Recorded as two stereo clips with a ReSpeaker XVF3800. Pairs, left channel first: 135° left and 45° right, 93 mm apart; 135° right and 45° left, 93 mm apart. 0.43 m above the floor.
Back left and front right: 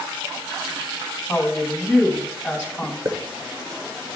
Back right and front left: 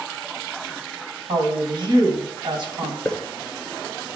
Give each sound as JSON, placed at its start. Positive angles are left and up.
{"t": 1.3, "sound": "a woman speaking", "azimuth_deg": 40, "distance_m": 2.5}
{"t": 3.0, "sound": "a hiss", "azimuth_deg": -55, "distance_m": 1.3}